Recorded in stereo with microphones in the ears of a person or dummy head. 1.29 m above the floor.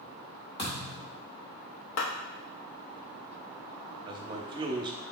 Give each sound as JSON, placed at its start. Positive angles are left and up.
{"t": 0.6, "sound": "a thud", "side_deg": 25, "distance_m": 1.5}
{"t": 2.0, "sound": "a clap", "side_deg": 70, "distance_m": 1.1}
{"t": 4.1, "sound": "a man speaking", "side_deg": -25, "distance_m": 0.7}